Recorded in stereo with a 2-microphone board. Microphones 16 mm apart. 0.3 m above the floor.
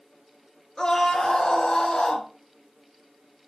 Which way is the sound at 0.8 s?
55° left (ahead or behind).